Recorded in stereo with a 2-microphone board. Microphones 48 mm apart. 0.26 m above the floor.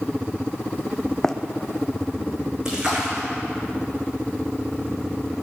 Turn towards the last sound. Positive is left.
turn(degrees=-15)  # may be behind; listen again after turning